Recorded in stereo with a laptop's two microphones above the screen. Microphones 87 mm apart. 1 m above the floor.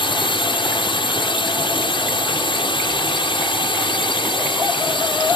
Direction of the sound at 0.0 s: 75° left (ahead or behind).